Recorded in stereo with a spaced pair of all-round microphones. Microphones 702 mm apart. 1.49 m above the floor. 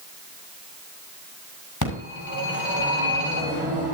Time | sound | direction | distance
1.8 | a phone ringing | 25° left (ahead or behind) | 7 m